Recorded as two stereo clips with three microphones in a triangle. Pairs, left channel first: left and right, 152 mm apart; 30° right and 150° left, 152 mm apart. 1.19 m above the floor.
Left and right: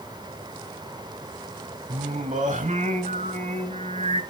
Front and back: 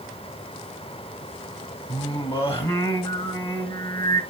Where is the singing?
70° right, 1.6 m.